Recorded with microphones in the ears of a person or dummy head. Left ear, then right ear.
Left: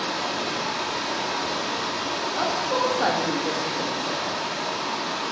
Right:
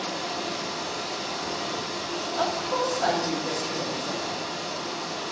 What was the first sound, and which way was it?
Running water, 65° left (ahead or behind).